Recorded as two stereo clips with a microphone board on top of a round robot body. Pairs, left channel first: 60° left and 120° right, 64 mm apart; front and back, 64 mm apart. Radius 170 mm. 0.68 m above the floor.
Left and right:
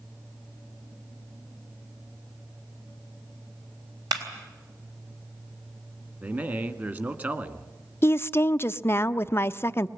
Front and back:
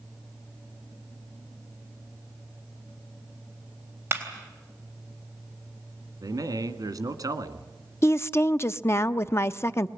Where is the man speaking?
175° right, 1.9 m.